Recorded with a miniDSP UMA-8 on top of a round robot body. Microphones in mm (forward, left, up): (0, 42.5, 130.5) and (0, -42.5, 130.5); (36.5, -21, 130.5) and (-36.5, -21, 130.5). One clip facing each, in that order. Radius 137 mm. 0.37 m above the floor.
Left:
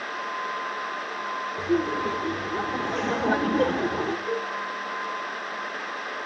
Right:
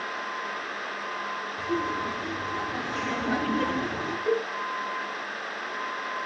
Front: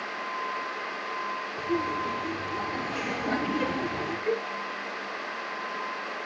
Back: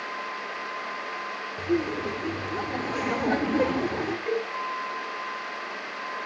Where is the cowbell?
95° right, 3.5 m.